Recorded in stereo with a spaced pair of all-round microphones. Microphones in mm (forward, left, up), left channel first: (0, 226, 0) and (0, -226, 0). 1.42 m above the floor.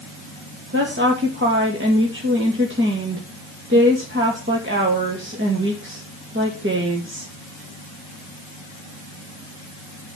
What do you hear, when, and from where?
0.7 s a woman speaking: 25° right (ahead or behind), 2 m